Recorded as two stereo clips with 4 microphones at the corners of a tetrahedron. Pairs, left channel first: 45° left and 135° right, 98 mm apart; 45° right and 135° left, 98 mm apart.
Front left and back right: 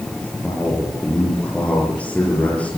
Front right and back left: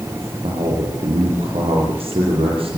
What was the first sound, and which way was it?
A man speaking, 120° left.